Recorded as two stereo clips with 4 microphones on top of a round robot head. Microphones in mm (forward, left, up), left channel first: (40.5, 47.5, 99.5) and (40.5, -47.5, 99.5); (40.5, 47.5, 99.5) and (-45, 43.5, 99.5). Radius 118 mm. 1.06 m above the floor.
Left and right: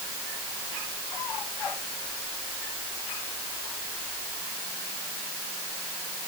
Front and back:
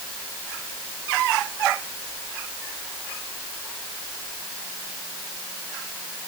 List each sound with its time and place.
Only background noise.